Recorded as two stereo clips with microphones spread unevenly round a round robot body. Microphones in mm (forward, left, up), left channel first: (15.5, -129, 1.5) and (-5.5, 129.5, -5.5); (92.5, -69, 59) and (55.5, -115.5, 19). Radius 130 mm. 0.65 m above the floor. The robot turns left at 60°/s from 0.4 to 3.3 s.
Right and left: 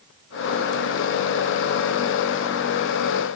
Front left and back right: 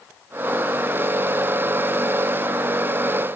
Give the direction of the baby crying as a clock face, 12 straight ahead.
No baby crying in this recording.